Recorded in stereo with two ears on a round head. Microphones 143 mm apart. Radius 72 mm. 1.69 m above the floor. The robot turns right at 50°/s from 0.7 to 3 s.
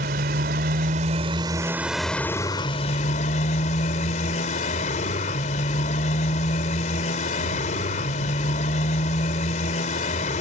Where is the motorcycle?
65° right; by 10.4 s 50° left.